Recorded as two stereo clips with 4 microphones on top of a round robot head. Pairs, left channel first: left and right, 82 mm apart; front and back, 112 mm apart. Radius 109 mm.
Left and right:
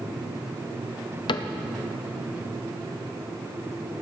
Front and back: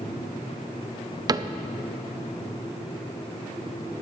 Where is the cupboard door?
125° left, 0.6 m.